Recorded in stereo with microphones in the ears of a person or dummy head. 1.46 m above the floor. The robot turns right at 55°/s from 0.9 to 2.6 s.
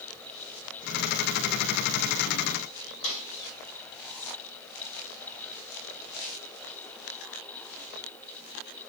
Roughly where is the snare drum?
Left.